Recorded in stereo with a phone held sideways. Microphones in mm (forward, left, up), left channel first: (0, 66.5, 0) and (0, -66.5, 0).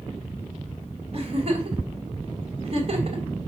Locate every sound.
1.1 s a giggle: 50° right (ahead or behind), 3.5 m